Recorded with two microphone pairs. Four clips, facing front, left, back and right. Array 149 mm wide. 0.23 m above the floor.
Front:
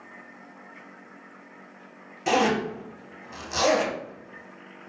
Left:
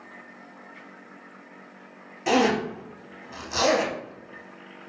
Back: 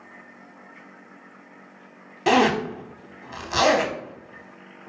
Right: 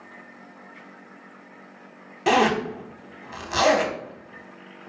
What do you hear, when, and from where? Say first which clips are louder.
2.3 s a zipper: right 2 dB, back 4 dB; 145° right, 0.6 m